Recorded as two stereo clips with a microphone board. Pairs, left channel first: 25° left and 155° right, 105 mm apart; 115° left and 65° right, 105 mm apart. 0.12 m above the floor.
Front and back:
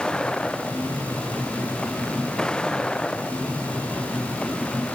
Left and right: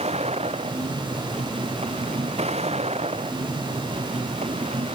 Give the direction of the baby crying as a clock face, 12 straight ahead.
No baby crying in this recording.